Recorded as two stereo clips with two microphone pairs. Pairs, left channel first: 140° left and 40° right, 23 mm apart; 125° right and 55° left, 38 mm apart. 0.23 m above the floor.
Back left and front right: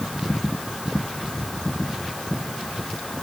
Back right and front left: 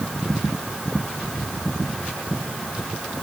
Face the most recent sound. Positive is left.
No sound to turn to.